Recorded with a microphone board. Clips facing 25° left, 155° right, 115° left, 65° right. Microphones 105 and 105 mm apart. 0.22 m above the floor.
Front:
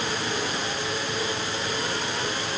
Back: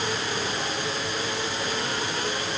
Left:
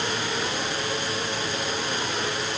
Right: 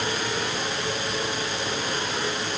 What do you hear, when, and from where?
Only background noise.